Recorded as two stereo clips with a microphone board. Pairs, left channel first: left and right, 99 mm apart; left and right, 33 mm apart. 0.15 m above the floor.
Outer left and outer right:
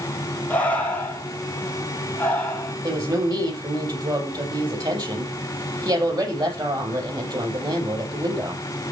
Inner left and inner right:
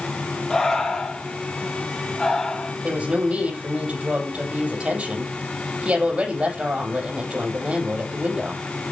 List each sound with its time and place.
0.5 s breathing: 15° left (ahead or behind), 2.5 m
2.8 s a woman speaking: 45° right (ahead or behind), 5.5 m